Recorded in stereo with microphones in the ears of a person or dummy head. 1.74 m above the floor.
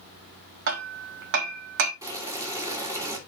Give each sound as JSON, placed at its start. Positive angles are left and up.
{"t": 0.7, "sound": "hammering", "side_deg": -55, "distance_m": 1.2}
{"t": 2.0, "sound": "boiling", "side_deg": -15, "distance_m": 2.5}